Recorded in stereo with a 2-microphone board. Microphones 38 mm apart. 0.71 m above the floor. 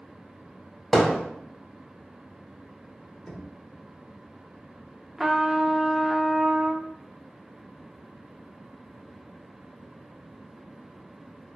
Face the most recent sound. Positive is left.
turn(degrees=-15)  # may be behind; listen again after turning